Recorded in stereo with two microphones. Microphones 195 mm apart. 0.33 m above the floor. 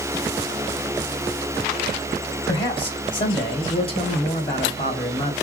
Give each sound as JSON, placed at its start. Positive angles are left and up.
{"t": 2.5, "sound": "a man speaking", "side_deg": 25, "distance_m": 1.6}